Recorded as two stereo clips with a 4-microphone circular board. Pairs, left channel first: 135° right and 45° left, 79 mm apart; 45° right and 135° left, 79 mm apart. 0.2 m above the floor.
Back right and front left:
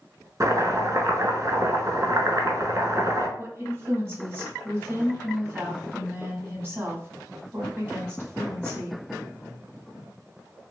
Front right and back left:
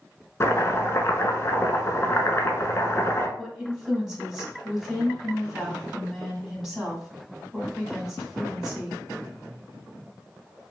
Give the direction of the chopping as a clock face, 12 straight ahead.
12 o'clock.